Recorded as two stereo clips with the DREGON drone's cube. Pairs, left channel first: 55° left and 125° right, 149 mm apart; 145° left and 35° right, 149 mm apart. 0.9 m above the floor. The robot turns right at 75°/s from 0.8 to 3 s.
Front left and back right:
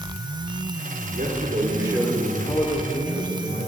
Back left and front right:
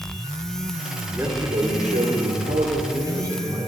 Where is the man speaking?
110° right, 2 m; by 3.7 s 30° left, 2 m.